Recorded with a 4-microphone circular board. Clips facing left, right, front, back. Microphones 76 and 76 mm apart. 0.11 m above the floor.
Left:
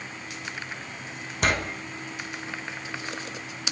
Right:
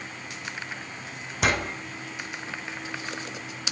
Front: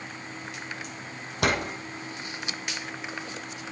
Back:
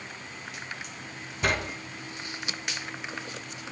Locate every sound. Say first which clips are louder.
1.4 s a door slam: even, front 2 dB; straight ahead, 3.5 m